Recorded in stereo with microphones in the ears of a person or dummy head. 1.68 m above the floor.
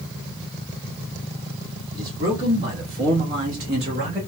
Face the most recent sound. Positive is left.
turn(degrees=-45)  # may be behind; listen again after turning